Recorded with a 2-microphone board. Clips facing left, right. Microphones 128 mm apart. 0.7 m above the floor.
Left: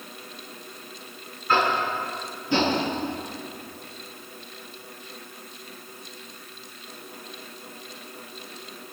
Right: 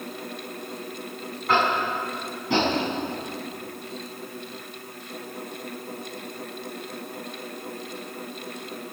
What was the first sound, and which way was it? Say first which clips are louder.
Tapping: even; 80° right.